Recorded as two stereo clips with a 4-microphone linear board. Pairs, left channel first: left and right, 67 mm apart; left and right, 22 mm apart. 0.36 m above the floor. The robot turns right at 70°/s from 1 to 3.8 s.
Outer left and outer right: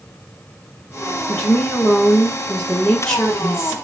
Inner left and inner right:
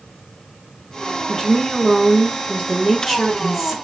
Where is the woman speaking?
30° left, 1.1 m; by 3.8 s 160° right, 1.1 m.